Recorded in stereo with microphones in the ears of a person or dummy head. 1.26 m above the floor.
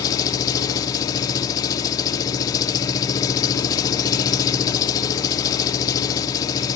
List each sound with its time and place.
0.0 s an engine running: 20° left (ahead or behind), 0.8 m